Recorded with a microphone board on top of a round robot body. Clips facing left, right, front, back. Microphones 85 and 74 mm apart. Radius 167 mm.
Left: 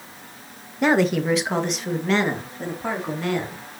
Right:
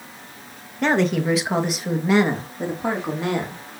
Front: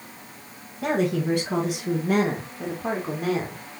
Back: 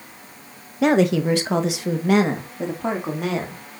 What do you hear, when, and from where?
0.8 s a woman speaking: 170° left, 1.3 m; by 3.6 s 160° right, 3 m